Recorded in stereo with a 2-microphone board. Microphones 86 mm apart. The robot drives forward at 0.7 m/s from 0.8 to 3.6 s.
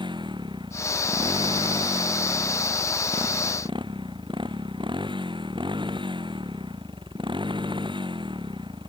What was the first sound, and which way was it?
A motorcycle, 70° right (ahead or behind).